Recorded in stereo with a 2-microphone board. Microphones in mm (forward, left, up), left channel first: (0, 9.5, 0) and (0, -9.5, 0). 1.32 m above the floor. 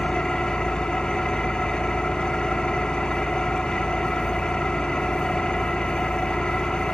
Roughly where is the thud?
No thud in this recording.